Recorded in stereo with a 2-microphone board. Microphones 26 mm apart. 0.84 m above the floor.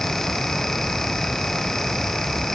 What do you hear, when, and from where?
Only background noise.